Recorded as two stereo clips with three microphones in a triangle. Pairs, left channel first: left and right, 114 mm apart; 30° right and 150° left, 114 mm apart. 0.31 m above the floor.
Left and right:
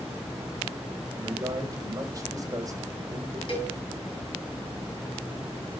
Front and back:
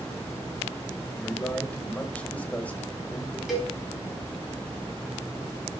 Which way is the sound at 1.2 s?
95° right.